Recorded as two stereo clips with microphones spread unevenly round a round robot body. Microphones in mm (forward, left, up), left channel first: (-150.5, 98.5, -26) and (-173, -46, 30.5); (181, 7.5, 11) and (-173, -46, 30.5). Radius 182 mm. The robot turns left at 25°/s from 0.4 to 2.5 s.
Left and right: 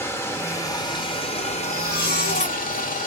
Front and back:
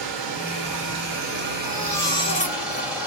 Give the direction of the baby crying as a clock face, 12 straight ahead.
9 o'clock.